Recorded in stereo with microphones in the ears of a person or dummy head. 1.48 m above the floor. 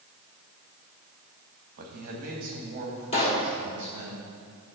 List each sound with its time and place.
1.8 s a man speaking: 55° right (ahead or behind), 1.5 m; by 4.1 s 40° right (ahead or behind), 3 m
3.1 s a pop: 35° left (ahead or behind), 1.2 m